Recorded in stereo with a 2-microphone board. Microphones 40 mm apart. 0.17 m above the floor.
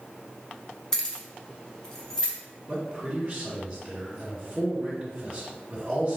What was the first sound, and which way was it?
Keys jangling, 15° left (ahead or behind).